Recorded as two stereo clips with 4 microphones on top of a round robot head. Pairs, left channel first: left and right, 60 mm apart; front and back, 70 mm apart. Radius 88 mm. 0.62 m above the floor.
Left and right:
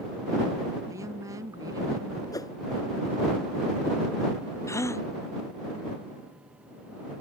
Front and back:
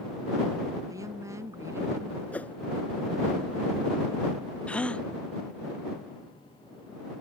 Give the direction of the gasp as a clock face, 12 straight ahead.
10 o'clock.